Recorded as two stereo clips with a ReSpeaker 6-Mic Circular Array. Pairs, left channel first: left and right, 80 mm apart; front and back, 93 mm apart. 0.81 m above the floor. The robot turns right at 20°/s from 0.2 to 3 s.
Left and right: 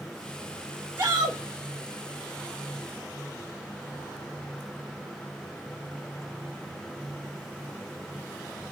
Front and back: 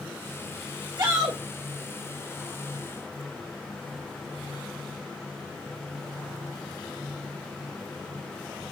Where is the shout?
145° right, 1.2 m; by 1.4 s 135° right, 1.2 m.